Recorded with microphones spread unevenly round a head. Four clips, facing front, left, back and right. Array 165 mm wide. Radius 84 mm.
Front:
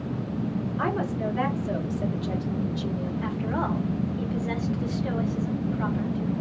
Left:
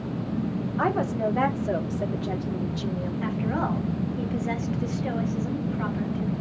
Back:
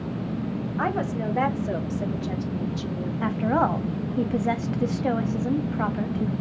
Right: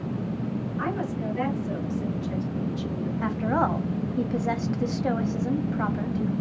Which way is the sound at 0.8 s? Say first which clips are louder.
Left 7 dB, back 2 dB; 130° left.